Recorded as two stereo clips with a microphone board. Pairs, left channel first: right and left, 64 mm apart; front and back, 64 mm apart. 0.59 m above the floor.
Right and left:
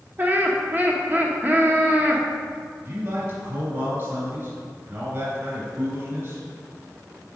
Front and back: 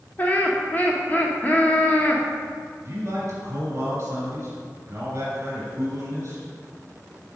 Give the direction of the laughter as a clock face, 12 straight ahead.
10 o'clock.